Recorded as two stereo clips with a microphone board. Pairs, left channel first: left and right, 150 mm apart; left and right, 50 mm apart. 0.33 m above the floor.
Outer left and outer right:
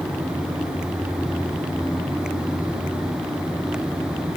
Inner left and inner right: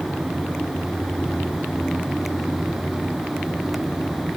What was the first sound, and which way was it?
Only background noise.